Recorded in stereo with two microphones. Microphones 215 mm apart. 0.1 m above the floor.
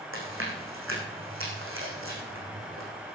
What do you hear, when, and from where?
0.1 s chewing: 80° right, 4 m